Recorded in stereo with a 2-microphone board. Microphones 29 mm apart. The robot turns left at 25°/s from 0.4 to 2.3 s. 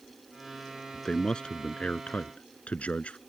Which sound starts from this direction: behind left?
A man speaking, at 0.9 s.